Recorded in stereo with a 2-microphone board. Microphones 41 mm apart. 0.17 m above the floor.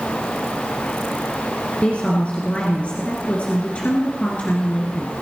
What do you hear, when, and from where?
1.8 s a woman speaking: 35° left (ahead or behind), 2.5 m